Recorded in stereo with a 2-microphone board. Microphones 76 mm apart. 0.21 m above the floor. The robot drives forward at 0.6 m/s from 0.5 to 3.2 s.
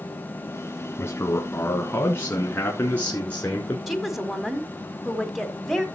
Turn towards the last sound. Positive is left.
turn(degrees=0)  # may be behind; listen again after turning